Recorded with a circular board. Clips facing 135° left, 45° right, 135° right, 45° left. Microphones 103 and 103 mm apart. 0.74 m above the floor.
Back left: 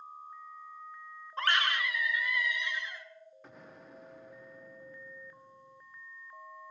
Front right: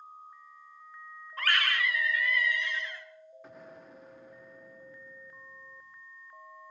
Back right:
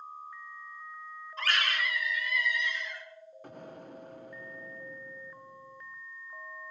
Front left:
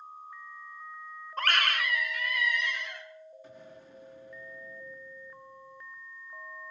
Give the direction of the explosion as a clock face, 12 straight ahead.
4 o'clock.